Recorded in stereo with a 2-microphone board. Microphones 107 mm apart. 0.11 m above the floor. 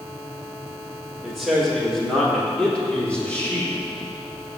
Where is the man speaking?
5° right (ahead or behind), 4 m; by 3.7 s 15° left (ahead or behind), 5 m.